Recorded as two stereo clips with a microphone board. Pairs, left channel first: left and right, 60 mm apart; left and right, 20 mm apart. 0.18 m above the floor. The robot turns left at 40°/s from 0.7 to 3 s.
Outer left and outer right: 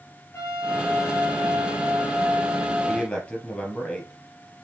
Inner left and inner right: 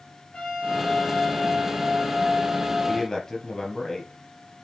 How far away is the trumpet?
About 3 m.